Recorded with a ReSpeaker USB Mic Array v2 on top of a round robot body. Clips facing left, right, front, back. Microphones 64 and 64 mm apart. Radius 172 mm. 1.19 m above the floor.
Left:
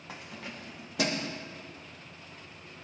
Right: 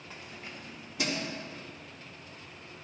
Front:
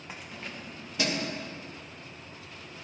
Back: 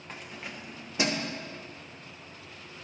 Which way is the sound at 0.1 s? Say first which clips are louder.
Left 3 dB, even; 80° left.